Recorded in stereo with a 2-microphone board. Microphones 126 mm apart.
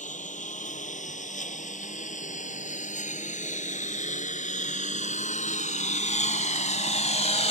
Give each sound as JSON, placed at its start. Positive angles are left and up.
{"t": 0.0, "sound": "a lawn mower", "side_deg": 80}